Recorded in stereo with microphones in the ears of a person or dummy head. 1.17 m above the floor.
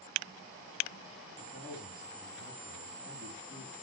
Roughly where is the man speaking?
Centre.